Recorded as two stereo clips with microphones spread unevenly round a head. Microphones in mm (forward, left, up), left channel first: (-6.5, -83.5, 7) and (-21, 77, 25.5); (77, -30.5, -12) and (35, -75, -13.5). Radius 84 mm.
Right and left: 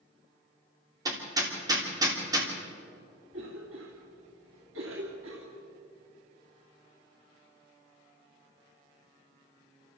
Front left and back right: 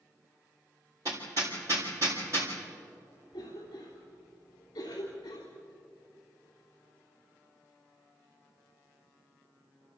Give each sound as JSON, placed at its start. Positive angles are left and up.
{"t": 1.1, "sound": "hammering", "azimuth_deg": 160, "distance_m": 3.0}
{"t": 3.3, "sound": "a cough", "azimuth_deg": 90, "distance_m": 2.5}